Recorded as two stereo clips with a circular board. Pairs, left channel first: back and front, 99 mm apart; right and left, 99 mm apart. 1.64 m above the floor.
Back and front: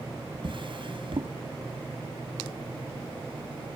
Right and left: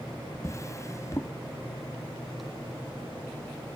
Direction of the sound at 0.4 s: 30° right.